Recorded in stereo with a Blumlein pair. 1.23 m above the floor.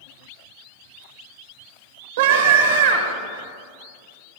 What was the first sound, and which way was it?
A scream, 60° right.